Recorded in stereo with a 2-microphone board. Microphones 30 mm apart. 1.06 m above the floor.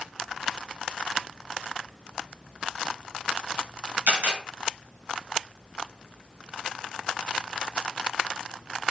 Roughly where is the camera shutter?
Right.